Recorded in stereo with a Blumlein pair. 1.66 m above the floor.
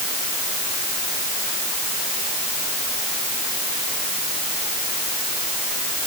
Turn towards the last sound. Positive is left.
No sound to turn to.